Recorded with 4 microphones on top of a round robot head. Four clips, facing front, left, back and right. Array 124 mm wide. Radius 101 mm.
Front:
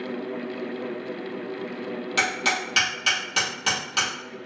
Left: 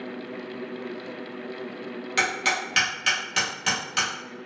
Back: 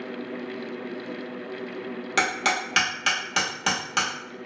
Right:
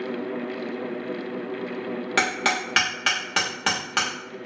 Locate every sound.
2.2 s hammering: 105° right, 1.0 m